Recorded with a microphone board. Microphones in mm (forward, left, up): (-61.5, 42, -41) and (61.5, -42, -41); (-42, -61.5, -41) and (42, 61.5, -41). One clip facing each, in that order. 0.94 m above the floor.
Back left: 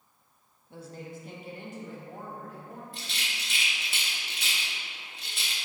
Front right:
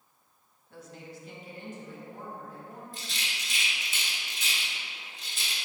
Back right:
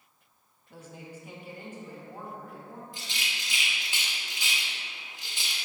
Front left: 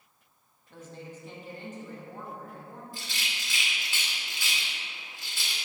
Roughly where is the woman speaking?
Behind.